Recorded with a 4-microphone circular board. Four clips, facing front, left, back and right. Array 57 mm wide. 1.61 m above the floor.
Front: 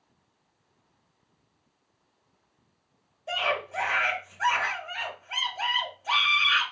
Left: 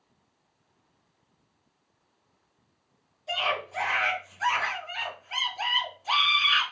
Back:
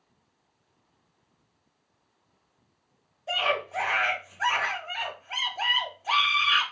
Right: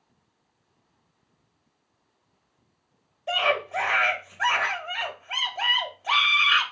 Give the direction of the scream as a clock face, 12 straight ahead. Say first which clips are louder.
Right 5 dB, back 1 dB; 3 o'clock.